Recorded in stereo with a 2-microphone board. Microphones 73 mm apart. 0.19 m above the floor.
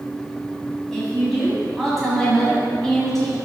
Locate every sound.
0.9 s a woman speaking: 5° left (ahead or behind), 1.5 m